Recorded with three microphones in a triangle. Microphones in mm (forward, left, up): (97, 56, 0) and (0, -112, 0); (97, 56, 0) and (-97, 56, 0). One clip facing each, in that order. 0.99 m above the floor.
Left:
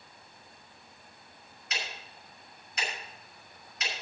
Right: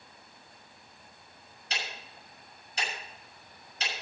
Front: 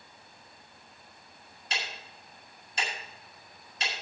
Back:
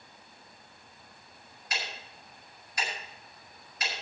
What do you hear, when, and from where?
1.7 s ticking: 60° right, 7 m